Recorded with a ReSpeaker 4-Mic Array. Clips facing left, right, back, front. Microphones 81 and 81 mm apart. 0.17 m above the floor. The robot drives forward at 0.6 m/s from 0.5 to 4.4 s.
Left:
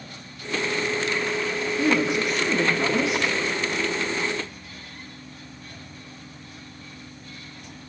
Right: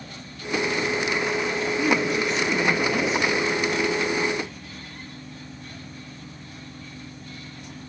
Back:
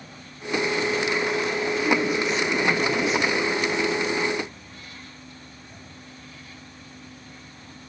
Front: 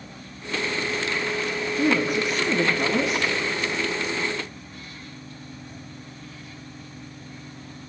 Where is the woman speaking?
15° left, 3.5 m; by 3.2 s 20° left, 2.5 m.